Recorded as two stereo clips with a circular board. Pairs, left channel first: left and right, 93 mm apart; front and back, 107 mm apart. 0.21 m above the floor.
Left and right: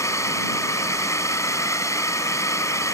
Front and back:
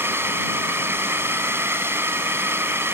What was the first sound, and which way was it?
A drone, 125° left.